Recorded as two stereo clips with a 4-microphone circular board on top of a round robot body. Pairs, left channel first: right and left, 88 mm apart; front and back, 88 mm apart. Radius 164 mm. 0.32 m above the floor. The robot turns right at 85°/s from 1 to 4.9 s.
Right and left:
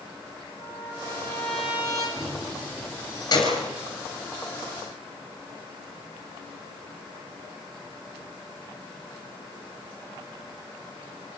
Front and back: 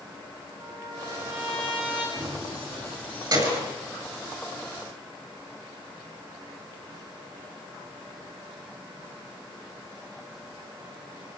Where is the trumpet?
50° right, 7 m; by 2.1 s 40° left, 7 m.